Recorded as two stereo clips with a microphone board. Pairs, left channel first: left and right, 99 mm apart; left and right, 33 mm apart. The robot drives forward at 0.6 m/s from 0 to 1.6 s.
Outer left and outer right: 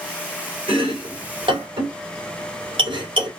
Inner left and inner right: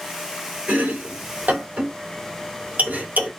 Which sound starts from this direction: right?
Chopping, at 0.7 s.